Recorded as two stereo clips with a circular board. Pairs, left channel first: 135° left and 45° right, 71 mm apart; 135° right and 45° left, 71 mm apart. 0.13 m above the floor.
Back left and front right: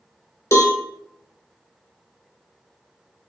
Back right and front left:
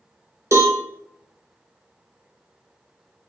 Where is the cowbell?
90° left, 0.6 m.